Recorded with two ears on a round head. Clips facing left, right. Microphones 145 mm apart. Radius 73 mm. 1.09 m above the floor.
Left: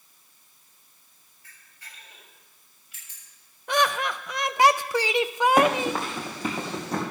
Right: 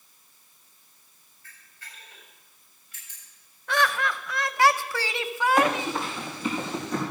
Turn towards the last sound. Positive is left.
turn(degrees=30)  # may be behind; listen again after turning